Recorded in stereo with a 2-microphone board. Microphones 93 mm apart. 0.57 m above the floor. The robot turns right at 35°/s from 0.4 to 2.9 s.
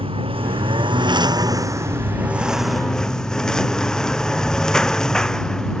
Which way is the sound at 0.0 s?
80° right.